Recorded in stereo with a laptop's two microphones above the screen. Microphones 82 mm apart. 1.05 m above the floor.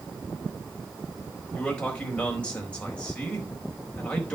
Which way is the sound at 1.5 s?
10° left (ahead or behind).